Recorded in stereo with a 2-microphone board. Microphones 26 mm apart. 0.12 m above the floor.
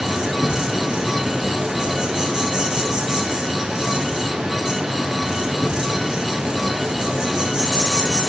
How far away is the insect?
About 5 m.